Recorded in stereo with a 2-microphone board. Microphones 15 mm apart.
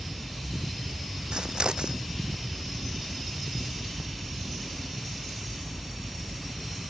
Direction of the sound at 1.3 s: 85° right.